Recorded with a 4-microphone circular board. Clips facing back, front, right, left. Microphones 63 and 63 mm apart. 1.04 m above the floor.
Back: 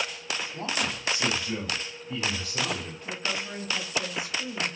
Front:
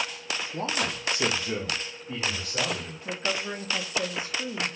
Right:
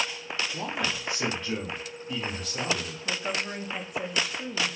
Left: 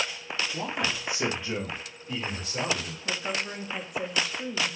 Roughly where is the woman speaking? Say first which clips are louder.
Front 3 dB, even; ahead.